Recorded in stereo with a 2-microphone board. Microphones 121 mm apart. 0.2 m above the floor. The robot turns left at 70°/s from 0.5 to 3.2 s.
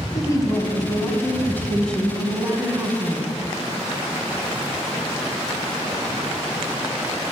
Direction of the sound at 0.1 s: 30° left (ahead or behind).